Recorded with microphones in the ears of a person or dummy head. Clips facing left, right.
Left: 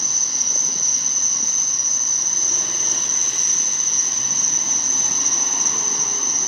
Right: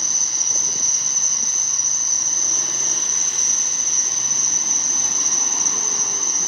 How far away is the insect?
About 1.1 m.